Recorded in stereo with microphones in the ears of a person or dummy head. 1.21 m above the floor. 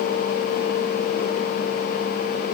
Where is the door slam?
I don't hear a door slam.